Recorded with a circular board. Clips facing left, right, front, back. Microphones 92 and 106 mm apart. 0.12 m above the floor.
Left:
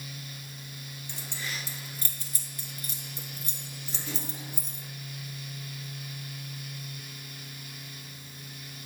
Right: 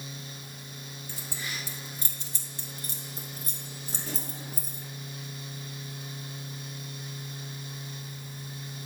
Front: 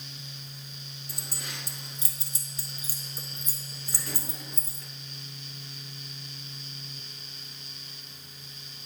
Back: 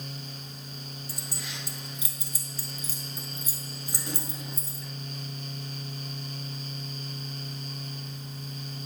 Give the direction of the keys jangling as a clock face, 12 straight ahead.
12 o'clock.